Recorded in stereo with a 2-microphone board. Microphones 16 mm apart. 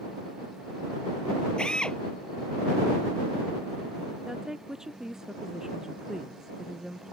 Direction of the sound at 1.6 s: 60° left (ahead or behind).